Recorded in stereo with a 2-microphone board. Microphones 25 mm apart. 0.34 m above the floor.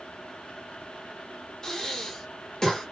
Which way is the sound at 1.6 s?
20° left (ahead or behind).